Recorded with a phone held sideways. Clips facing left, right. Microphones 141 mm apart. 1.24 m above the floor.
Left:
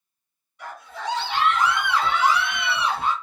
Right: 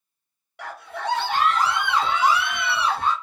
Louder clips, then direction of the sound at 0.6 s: Right 2 dB; 80° right.